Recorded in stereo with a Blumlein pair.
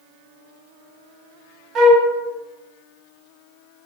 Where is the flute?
20° right, 0.7 m.